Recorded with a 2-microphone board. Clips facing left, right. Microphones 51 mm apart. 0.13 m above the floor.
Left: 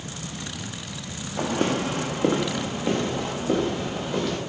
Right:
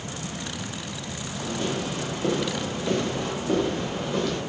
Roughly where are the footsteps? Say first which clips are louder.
Left 5 dB; left.